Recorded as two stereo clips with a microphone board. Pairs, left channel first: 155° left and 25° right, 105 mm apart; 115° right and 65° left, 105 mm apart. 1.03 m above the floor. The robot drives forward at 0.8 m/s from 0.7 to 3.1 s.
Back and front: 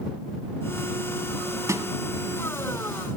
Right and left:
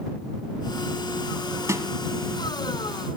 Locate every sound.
1.7 s a snare drum: 20° left, 1.1 m; by 1.9 s 25° left, 1.1 m